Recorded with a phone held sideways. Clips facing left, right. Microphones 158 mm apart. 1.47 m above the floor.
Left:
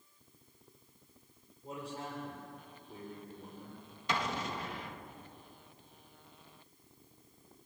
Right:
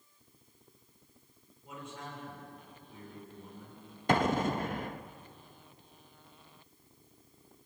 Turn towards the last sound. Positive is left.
turn(degrees=-50)  # may be behind; listen again after turning